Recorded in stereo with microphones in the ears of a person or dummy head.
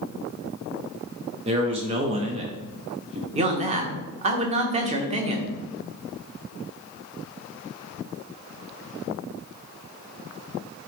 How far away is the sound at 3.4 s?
About 1.2 m.